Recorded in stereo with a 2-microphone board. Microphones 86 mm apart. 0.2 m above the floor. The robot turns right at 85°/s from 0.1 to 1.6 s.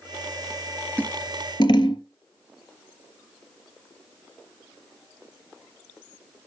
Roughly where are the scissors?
Centre.